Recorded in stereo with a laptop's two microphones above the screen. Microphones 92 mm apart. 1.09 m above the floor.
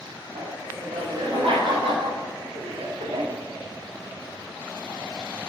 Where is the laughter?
85° right, 5 m.